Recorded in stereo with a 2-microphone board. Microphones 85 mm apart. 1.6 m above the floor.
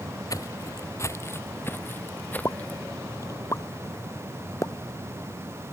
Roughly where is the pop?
Left.